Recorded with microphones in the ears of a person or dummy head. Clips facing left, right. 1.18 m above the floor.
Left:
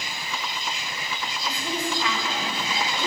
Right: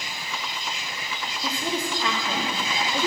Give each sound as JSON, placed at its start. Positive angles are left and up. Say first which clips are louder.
{"t": 1.4, "sound": "a woman speaking", "louder": "right 2 dB", "side_deg": -30, "distance_m": 1.9}